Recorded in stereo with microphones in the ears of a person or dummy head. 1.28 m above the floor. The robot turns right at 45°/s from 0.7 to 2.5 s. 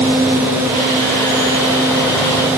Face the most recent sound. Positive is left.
No sound to turn to.